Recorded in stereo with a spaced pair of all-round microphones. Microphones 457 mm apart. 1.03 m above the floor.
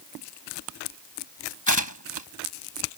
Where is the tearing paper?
40° left (ahead or behind).